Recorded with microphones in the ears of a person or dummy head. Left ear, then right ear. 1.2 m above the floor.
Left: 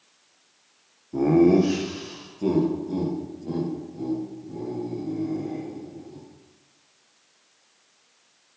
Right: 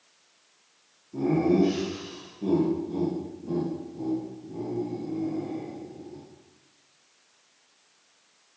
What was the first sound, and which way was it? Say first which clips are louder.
Laughter: left 5 dB; 70° left (ahead or behind).